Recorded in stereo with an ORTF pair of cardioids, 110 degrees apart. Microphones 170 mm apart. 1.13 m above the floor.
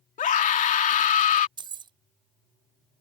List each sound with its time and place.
0.2 s a scream: 50° left
1.6 s keys jangling: 25° right